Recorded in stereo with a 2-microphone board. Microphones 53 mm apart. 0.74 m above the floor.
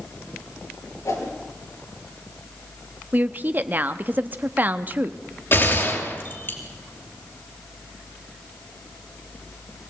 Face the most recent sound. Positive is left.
turn(degrees=45)  # may be behind; listen again after turning